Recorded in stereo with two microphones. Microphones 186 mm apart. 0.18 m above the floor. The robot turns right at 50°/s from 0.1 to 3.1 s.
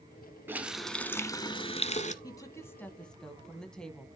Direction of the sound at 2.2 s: 20° left (ahead or behind).